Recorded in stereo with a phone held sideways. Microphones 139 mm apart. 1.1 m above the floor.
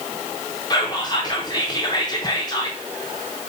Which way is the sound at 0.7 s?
30° left (ahead or behind).